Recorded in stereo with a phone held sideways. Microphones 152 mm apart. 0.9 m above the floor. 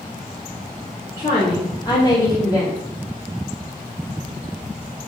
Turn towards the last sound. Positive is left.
turn(degrees=20)  # may be behind; listen again after turning